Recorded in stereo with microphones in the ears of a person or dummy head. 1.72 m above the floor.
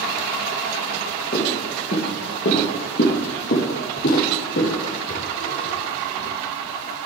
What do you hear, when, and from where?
1.3 s footsteps: 40° left (ahead or behind), 2.5 m; by 6.3 s 55° left (ahead or behind), 5.5 m